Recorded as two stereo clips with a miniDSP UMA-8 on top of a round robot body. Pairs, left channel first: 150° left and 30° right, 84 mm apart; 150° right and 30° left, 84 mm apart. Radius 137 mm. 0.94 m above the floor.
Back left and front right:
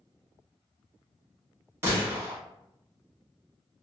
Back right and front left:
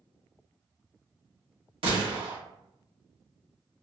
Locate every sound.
1.8 s a gunshot: 30° left, 1.2 m